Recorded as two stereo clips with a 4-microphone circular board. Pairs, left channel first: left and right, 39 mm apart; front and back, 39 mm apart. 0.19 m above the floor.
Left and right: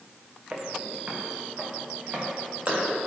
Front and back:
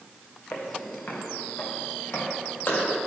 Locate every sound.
0.5 s footsteps: 30° right, 1.5 m